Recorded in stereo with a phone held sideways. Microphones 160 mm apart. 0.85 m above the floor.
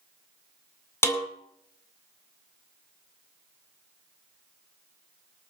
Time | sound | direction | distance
1.0 | a snare drum | 15° left (ahead or behind) | 2 m